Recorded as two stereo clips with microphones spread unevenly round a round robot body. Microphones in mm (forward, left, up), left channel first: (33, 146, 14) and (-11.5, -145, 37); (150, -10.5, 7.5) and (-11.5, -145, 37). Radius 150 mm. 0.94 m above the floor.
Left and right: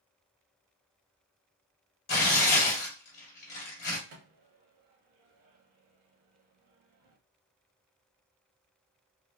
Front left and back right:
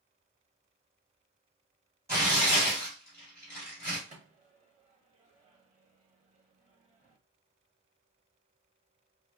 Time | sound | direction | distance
2.1 | tearing paper | 135° left | 1.3 m
4.1 | a microwave | 80° right | 1.1 m